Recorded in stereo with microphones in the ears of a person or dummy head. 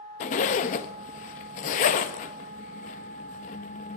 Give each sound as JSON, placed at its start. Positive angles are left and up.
{"t": 0.2, "sound": "a zipper", "side_deg": 40, "distance_m": 1.1}